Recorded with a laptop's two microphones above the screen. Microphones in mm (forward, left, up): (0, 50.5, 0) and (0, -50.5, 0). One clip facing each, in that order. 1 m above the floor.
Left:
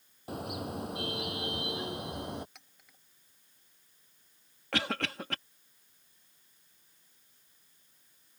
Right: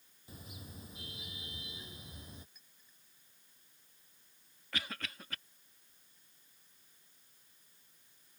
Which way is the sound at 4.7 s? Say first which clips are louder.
Left 10 dB; 75° left (ahead or behind).